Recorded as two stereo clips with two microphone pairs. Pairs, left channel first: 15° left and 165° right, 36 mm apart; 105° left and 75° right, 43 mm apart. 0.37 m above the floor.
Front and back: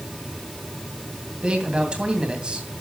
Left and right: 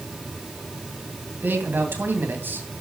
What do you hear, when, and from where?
1.4 s a man speaking: 105° right, 2.5 m